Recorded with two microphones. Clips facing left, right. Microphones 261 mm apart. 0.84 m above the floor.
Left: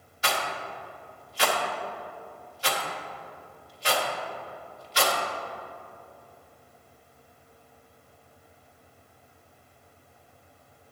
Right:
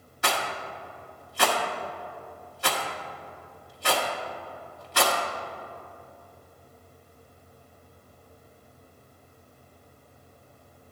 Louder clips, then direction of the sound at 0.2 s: Right 1 dB; 60° right (ahead or behind).